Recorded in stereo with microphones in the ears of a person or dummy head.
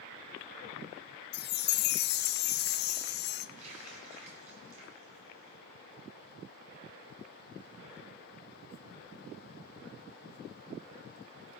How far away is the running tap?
About 9.5 m.